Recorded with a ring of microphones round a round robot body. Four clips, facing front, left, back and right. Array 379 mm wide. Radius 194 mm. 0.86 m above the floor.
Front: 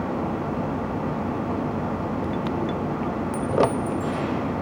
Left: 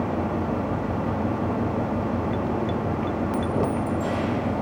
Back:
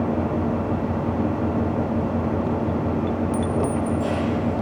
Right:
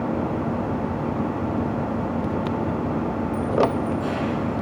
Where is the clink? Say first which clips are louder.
Right 6 dB, front 1 dB; 95° left, 1.0 m.